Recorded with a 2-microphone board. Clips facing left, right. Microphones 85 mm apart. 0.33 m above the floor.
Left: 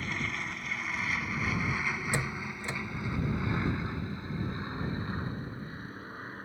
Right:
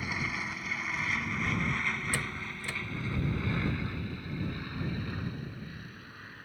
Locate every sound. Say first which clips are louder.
0.0 s an aircraft: even; 5° right (ahead or behind); by 6.5 s 35° left (ahead or behind)
2.1 s a door slam: left 2 dB; 25° left (ahead or behind)